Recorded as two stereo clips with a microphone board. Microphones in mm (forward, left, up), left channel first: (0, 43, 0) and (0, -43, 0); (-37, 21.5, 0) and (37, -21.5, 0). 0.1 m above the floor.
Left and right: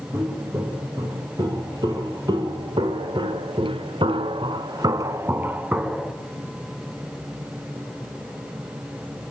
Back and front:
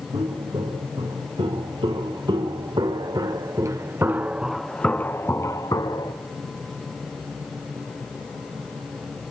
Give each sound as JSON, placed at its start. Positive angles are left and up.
{"t": 0.1, "sound": "footsteps", "azimuth_deg": -45, "distance_m": 5.0}